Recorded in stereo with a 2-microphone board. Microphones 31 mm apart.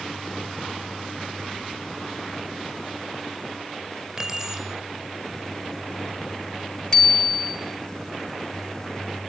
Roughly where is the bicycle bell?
Left.